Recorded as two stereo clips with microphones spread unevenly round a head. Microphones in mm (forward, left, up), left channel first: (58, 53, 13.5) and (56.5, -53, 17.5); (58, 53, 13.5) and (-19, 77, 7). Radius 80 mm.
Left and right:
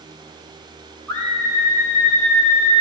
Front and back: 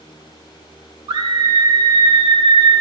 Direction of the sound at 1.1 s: 165° left.